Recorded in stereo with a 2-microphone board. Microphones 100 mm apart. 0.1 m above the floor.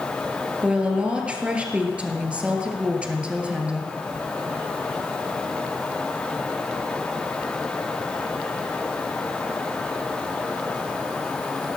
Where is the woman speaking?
10° right (ahead or behind), 1.5 m.